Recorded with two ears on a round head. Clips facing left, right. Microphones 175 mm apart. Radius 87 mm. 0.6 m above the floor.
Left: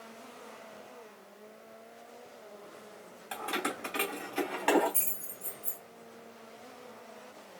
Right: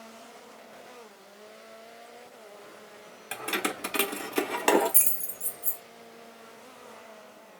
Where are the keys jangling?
25° right (ahead or behind), 1.0 m; by 5.8 s 40° right (ahead or behind), 1.8 m.